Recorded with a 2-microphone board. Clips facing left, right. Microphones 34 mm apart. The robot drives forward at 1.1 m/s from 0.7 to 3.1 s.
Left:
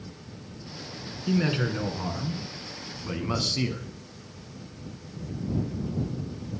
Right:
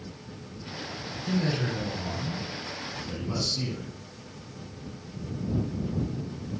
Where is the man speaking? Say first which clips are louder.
Left 3 dB; 40° left (ahead or behind), 2.5 m; by 3.9 s 55° left (ahead or behind), 1.9 m.